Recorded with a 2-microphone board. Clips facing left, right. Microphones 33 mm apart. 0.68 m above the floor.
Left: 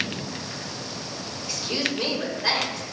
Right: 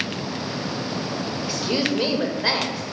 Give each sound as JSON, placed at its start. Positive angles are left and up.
{"t": 1.4, "sound": "a woman speaking", "side_deg": -20, "distance_m": 1.1}